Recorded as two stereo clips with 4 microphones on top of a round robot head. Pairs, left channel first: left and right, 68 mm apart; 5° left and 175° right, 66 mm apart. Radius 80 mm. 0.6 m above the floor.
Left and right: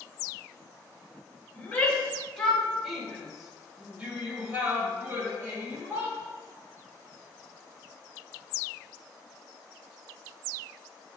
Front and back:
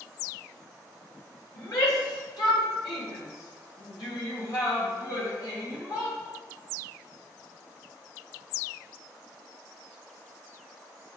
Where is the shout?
20° left, 3.5 m; by 6.2 s 40° right, 4.5 m.